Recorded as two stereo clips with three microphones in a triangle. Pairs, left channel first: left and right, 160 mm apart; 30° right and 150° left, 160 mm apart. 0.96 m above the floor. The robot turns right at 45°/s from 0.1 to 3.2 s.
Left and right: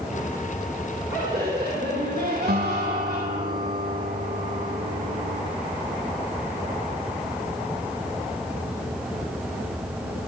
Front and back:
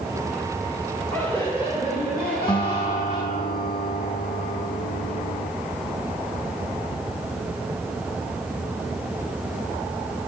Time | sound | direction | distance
1.1 | laughter | 110° right | 2.5 m
2.5 | a guitar | 90° right | 1.0 m